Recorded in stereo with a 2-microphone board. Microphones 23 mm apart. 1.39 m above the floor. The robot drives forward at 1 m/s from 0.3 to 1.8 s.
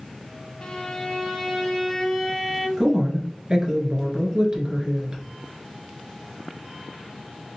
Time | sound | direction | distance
0.6 | a violin | 55° left (ahead or behind) | 0.8 m
2.8 | a woman speaking | 25° right (ahead or behind) | 1.5 m